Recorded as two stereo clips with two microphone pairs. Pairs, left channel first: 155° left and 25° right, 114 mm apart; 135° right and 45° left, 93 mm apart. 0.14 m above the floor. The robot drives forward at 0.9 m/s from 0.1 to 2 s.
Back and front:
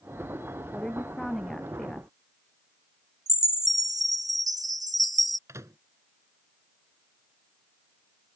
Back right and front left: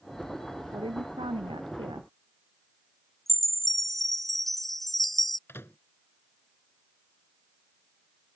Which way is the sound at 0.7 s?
65° left.